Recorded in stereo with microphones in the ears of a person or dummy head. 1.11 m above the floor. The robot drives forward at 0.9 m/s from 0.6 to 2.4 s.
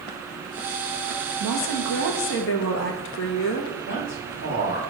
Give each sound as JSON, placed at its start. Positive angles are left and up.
{"t": 1.4, "sound": "a woman speaking", "side_deg": 60, "distance_m": 1.5}
{"t": 3.9, "sound": "a man speaking", "side_deg": 60, "distance_m": 2.5}